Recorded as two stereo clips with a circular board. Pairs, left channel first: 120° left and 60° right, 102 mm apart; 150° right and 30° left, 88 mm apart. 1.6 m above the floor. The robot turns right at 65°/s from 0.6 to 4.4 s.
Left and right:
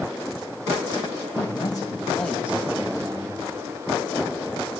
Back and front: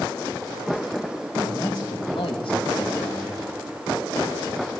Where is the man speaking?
145° left, 2 m; by 3.4 s 80° right, 2 m.